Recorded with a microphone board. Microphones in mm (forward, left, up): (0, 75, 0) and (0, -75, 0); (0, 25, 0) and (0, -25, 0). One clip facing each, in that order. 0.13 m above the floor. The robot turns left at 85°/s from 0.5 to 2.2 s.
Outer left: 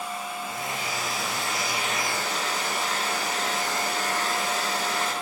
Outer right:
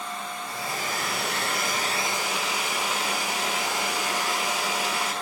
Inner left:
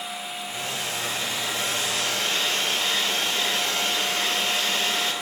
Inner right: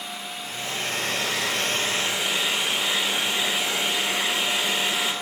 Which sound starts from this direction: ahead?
A hair dryer, at 0.5 s.